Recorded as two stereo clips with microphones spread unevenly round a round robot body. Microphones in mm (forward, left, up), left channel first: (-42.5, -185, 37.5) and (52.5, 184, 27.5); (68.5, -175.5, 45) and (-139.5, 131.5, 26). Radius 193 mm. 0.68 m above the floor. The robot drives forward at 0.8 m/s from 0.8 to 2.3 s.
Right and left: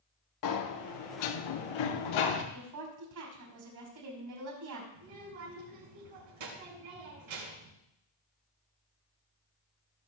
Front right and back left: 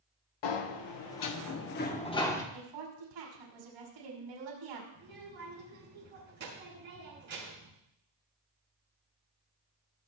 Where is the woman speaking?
115° left, 5 m.